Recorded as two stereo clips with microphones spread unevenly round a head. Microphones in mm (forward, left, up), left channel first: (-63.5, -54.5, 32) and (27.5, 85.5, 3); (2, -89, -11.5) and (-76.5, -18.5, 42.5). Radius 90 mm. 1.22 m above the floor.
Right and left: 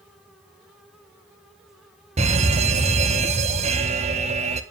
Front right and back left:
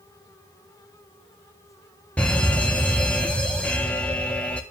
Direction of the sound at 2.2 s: 20° left.